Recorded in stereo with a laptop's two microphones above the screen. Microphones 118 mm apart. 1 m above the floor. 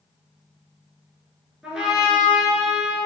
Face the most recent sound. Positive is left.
turn(degrees=-5)  # may be behind; listen again after turning